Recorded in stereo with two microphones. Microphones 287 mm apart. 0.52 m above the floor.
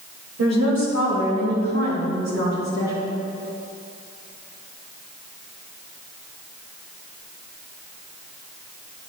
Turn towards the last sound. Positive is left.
turn(degrees=-65)  # may be behind; listen again after turning